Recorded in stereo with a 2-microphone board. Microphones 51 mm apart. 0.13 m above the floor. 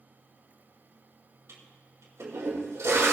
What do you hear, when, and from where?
1.5 s a toilet flushing: 65° right (ahead or behind), 4.5 m